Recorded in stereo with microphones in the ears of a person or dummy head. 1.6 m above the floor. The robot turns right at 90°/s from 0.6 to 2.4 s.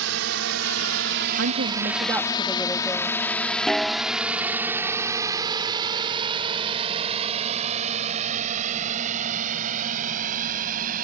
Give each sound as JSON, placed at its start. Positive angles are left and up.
{"t": 0.0, "sound": "a drone", "side_deg": -80}
{"t": 1.4, "sound": "a woman speaking", "azimuth_deg": -85}
{"t": 3.7, "sound": "a snare drum", "side_deg": 0}